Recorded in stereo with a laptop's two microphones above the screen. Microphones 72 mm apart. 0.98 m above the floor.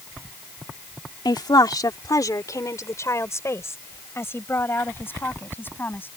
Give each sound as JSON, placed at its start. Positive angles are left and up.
{"t": 1.2, "sound": "a woman speaking", "side_deg": 80}